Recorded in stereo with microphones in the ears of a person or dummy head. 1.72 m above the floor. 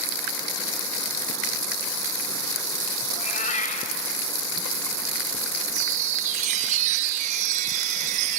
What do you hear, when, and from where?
3.1 s a cat meowing: 50° left (ahead or behind), 3 m
5.7 s a chime: 35° right (ahead or behind), 1.0 m